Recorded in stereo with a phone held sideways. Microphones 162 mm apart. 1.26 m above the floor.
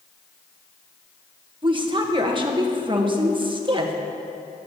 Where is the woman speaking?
30° right (ahead or behind), 1.3 m.